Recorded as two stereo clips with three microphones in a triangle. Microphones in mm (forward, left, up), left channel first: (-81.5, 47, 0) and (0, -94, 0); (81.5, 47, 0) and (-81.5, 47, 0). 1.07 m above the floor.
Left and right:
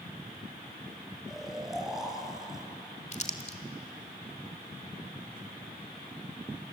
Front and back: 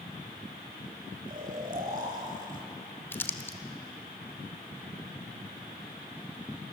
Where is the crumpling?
75° left, 1.6 m.